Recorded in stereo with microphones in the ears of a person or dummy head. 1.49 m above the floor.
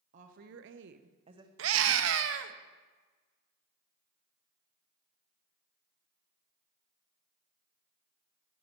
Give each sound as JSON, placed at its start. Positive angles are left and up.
{"t": 0.1, "sound": "a woman speaking", "side_deg": -40, "distance_m": 0.9}
{"t": 1.6, "sound": "a scream", "side_deg": -70, "distance_m": 0.7}